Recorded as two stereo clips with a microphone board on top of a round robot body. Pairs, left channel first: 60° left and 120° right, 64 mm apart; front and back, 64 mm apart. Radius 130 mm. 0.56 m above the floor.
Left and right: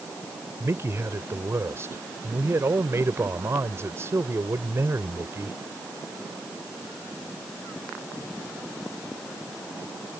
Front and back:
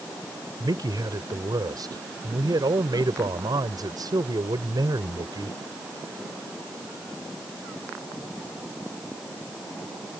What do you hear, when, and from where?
0.6 s a man speaking: 170° right